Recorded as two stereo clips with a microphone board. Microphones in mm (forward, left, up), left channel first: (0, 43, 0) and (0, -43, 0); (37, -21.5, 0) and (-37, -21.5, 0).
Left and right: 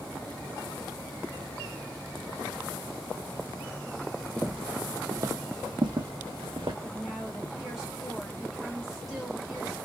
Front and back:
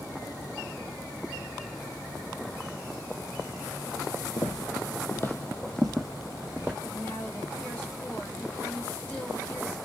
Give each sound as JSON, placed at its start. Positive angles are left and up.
{"t": 4.4, "sound": "footsteps", "azimuth_deg": 5, "distance_m": 0.6}
{"t": 6.8, "sound": "a woman speaking", "azimuth_deg": -5, "distance_m": 1.5}